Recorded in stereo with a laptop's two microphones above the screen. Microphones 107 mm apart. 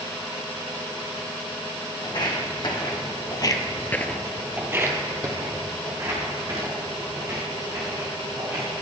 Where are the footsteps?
45° left (ahead or behind), 3 m; by 8.7 s 40° right (ahead or behind), 6.5 m.